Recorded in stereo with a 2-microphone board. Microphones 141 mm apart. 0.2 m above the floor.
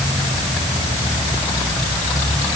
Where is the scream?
No scream in this recording.